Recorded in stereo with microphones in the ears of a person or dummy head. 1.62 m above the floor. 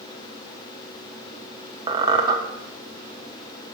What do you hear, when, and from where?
1.9 s a squeak: 25° right (ahead or behind), 0.9 m